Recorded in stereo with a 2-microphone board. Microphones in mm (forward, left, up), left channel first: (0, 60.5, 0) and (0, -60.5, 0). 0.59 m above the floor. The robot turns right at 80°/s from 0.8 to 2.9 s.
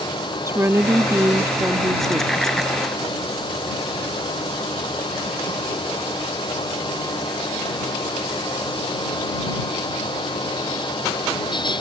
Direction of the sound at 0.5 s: 20° right (ahead or behind).